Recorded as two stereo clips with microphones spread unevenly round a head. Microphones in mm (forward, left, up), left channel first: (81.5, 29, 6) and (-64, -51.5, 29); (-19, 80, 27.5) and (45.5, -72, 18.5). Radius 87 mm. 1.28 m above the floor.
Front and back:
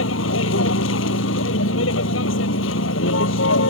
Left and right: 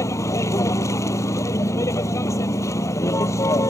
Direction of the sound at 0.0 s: 40° left.